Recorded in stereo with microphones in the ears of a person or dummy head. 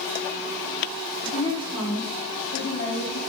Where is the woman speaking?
10° left (ahead or behind), 5 m; by 3.2 s 50° left (ahead or behind), 4 m.